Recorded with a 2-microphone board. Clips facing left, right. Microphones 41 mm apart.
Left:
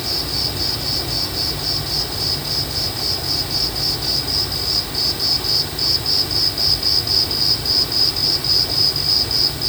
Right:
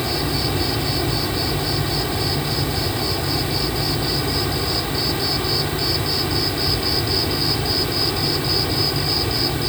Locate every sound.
0.0 s an insect: 30° right (ahead or behind)